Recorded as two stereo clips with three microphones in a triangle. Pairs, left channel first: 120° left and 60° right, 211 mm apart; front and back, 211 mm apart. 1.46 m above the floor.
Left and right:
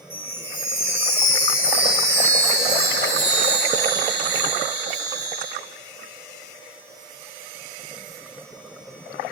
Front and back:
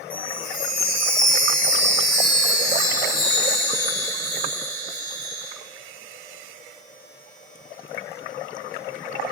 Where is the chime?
40° left, 1.6 m.